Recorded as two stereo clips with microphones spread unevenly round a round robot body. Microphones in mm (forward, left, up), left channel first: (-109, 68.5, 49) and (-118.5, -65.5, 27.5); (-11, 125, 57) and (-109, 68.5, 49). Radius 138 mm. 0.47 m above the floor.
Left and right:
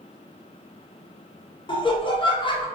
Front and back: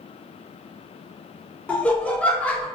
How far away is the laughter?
About 0.8 m.